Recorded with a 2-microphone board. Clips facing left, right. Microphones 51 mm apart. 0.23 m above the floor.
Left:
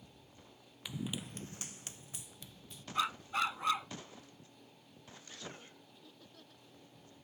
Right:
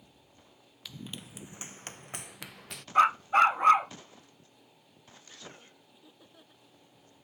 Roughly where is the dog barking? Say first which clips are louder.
Right 13 dB; right.